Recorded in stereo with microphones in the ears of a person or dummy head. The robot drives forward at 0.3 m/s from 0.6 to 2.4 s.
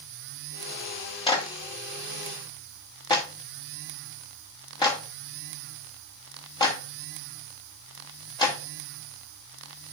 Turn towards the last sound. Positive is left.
turn(degrees=20)  # may be behind; listen again after turning